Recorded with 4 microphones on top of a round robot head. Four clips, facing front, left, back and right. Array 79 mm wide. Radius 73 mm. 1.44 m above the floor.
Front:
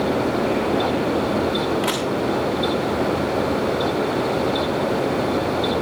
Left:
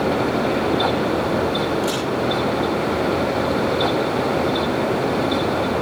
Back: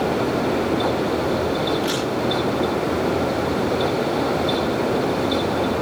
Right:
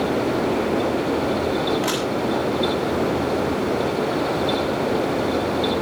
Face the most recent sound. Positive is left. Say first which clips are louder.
# left 1 dB, even
turn(degrees=-30)